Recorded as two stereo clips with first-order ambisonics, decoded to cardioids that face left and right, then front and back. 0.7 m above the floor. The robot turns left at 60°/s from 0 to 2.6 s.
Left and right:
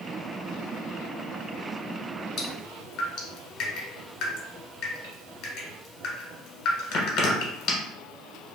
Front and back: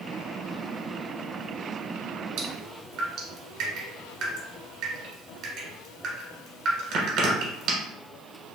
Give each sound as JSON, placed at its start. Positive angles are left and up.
{"t": 2.4, "sound": "dripping", "azimuth_deg": 145, "distance_m": 1.3}